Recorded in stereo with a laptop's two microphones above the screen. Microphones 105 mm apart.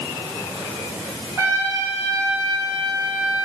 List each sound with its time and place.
1.4 s a trumpet: 30° right (ahead or behind), 2.5 m